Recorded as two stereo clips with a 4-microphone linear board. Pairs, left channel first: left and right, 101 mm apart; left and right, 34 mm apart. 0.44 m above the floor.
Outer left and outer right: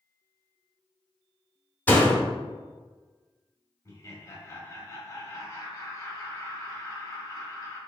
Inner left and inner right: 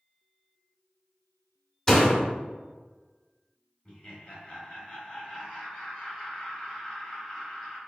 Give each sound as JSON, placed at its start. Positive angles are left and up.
{"t": 1.9, "sound": "a door slam", "side_deg": 20, "distance_m": 0.7}
{"t": 3.9, "sound": "laughter", "side_deg": 30, "distance_m": 1.1}